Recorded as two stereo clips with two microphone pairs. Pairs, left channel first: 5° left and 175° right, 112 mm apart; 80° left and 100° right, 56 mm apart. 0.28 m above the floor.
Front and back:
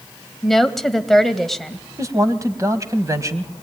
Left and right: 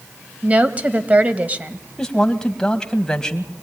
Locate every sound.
0.4 s a woman speaking: 80° right, 1.4 m
2.0 s a man speaking: 145° left, 1.8 m